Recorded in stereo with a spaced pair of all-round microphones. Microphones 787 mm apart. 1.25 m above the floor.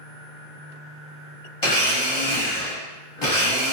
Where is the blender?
35° left (ahead or behind), 1.0 m.